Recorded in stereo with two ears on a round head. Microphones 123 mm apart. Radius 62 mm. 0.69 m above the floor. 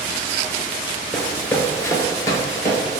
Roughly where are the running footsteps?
Centre.